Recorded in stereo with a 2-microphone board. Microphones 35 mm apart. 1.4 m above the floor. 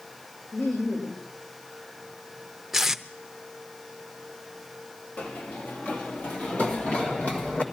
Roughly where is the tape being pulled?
Centre.